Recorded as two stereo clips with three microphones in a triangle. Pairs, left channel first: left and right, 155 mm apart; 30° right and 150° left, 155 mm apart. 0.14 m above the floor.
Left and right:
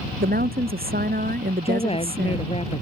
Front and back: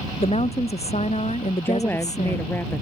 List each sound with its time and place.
0.2 s a woman speaking: 80° right; by 2.6 s 75° right
1.6 s a woman speaking: 45° left